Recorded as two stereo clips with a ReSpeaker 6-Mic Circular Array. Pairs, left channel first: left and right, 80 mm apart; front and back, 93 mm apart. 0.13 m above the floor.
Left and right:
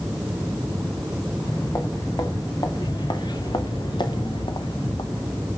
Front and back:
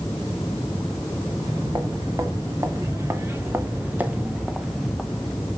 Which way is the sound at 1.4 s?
130° left.